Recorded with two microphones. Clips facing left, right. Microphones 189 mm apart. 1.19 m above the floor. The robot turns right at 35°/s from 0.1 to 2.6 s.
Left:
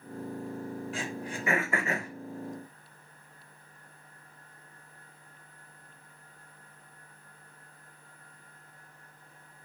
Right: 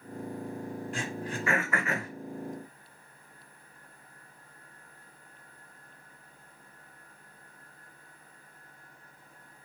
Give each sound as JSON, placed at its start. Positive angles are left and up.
{"t": 0.9, "sound": "throat clearing", "side_deg": 0, "distance_m": 1.2}